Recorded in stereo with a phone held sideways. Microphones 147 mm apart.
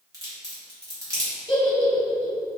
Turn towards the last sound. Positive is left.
turn(degrees=35)  # may be behind; listen again after turning